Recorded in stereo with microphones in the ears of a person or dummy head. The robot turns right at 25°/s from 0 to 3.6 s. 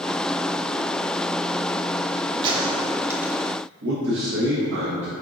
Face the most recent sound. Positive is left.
turn(degrees=-75)  # may be behind; listen again after turning